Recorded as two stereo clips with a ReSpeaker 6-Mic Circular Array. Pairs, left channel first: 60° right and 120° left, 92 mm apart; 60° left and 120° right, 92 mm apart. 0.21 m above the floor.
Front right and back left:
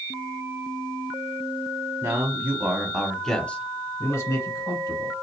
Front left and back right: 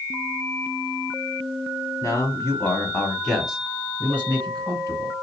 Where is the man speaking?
85° left, 1.4 m; by 5.1 s 75° right, 1.8 m.